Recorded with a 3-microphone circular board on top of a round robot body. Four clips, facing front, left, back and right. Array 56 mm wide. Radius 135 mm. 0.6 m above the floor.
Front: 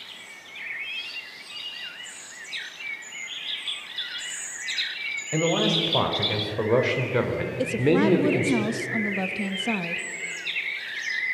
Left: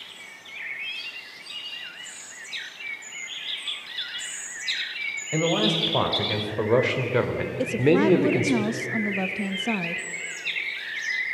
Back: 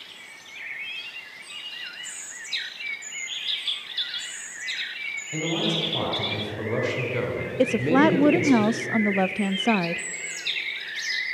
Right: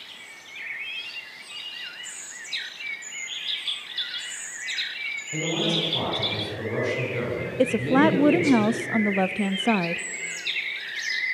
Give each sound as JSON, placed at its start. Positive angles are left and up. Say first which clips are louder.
{"t": 5.3, "sound": "a man speaking", "louder": "left 4 dB, front 4 dB", "azimuth_deg": 45, "distance_m": 4.5}
{"t": 7.6, "sound": "a woman speaking", "louder": "right 1 dB, back 3 dB", "azimuth_deg": -140, "distance_m": 0.8}